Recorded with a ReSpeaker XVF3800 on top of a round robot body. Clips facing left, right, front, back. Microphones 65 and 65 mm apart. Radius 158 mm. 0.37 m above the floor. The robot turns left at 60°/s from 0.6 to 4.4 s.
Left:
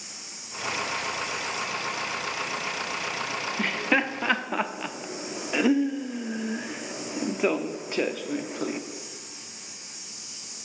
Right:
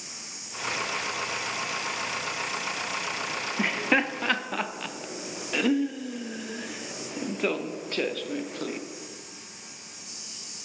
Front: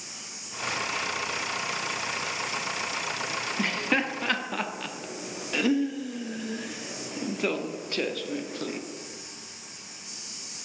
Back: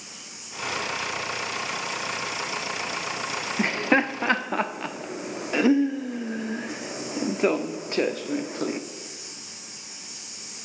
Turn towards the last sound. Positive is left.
turn(degrees=150)